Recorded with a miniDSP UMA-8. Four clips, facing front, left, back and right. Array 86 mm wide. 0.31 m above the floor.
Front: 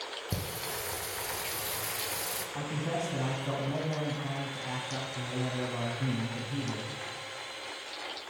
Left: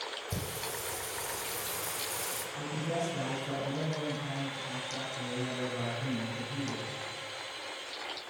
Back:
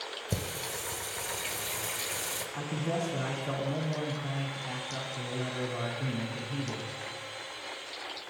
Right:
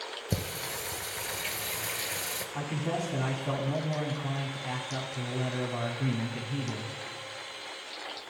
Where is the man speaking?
75° right, 2 m.